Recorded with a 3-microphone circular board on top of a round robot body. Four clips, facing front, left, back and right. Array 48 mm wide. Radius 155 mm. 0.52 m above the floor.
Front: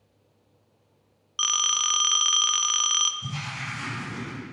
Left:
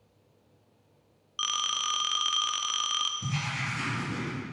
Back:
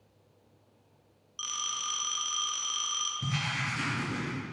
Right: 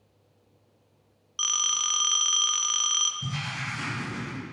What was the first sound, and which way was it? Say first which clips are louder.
A phone ringing: even, front 10 dB; 5° left.